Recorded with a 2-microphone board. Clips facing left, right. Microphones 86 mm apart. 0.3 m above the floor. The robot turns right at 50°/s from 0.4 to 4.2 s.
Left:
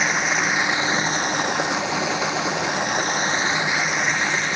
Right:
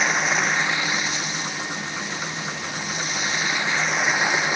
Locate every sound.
0.0 s running water: straight ahead; by 4.6 s 170° right